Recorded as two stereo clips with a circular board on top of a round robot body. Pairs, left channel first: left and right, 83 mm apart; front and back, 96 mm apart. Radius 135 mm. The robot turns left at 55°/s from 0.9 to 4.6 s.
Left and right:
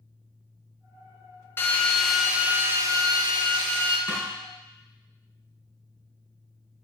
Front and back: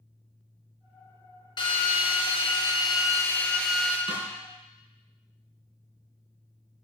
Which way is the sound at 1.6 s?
30° left.